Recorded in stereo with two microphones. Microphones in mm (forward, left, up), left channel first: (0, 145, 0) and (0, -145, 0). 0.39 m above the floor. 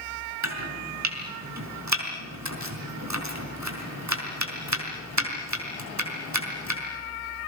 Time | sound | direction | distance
0.4 | chopping | 70° right (ahead or behind) | 5 m